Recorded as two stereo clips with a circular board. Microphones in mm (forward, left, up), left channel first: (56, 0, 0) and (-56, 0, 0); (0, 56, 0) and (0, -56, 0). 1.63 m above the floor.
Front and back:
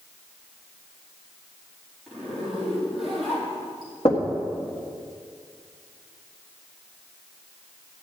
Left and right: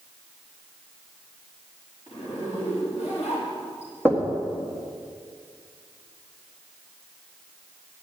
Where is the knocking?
15° left, 1.7 m.